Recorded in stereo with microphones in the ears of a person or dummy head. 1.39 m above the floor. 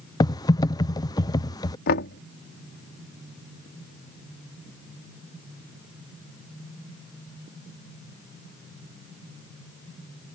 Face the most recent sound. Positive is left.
turn(degrees=55)  # may be behind; listen again after turning